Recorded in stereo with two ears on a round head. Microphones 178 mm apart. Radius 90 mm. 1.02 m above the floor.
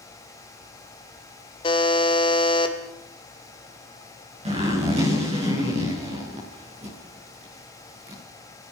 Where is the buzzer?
25° left (ahead or behind), 2.0 m.